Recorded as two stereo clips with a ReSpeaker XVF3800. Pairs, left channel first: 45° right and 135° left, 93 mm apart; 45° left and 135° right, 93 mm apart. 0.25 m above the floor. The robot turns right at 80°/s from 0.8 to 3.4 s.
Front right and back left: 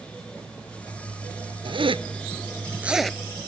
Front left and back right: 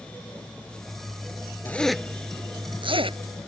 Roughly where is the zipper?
Behind left.